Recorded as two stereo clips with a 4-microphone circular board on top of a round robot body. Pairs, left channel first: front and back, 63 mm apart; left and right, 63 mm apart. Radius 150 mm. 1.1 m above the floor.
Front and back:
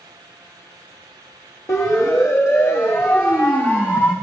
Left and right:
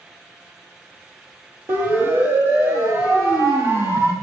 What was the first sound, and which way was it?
A siren, 40° right.